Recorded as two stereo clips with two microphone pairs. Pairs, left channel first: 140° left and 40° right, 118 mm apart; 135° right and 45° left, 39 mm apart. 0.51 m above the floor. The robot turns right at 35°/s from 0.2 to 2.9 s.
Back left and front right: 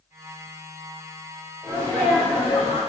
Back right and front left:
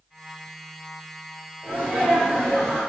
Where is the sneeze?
50° left, 1.8 m; by 2.8 s 90° left, 1.8 m.